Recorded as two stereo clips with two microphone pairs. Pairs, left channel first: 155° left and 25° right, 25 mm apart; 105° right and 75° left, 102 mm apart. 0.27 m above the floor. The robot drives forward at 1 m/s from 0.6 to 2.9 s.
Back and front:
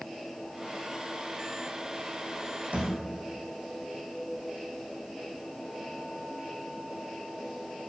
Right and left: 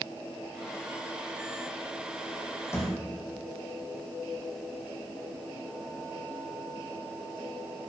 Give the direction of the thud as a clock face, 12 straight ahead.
1 o'clock.